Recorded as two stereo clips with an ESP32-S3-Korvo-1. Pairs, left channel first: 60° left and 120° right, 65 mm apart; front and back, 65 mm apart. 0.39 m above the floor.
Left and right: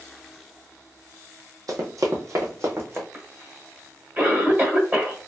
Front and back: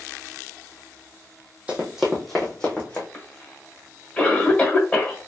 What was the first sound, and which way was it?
Running footsteps, 110° right.